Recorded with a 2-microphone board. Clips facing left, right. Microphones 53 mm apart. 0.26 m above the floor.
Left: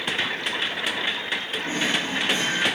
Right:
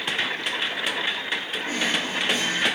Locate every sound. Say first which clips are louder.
1.6 s a drawer: left 1 dB; 35° left (ahead or behind), 8 m